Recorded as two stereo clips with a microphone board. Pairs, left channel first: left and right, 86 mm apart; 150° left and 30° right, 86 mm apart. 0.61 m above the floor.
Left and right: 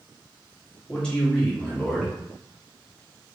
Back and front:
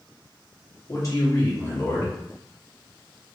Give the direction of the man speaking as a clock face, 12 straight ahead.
7 o'clock.